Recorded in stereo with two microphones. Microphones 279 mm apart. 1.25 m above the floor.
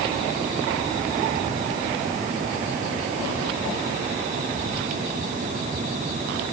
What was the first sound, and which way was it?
Only background noise.